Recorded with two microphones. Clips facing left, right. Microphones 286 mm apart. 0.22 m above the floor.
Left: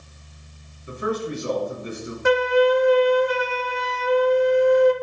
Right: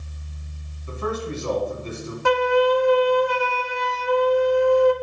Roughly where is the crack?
No crack in this recording.